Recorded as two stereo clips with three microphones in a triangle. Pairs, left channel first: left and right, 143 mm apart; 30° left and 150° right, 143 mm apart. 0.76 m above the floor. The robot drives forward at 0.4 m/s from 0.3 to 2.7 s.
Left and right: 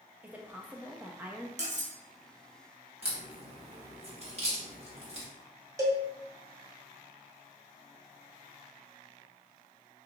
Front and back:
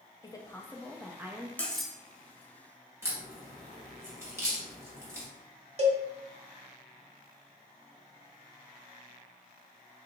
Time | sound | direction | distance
0.2 | a woman speaking | 15° right | 0.6 m
1.6 | cutlery clinking | 50° right | 0.6 m
3.0 | a crack | 85° right | 1.1 m
5.8 | a cowbell | 150° right | 0.7 m